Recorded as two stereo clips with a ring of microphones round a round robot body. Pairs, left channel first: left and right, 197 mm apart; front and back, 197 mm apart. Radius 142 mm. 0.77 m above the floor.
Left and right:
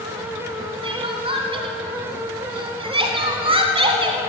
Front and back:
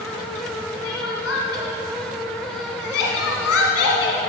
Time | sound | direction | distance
0.8 | crying | 30° right | 1.5 m